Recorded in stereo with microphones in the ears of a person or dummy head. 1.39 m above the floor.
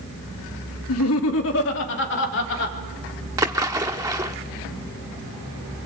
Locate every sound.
0.9 s laughter: 75° left (ahead or behind), 2 m; by 2.8 s 60° left (ahead or behind), 4.5 m
3.4 s a splash: 20° right (ahead or behind), 1.1 m